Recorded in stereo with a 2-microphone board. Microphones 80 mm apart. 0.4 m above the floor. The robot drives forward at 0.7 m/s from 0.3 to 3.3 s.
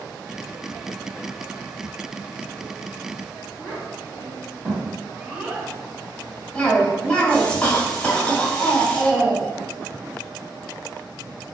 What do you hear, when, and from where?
3.6 s a child speaking: 15° right (ahead or behind), 1.6 m
6.5 s a cough: 15° left (ahead or behind), 1.6 m